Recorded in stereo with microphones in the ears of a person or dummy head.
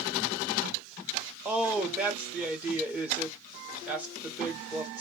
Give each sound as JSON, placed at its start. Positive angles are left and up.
{"t": 1.4, "sound": "a woman speaking", "side_deg": -5, "distance_m": 0.8}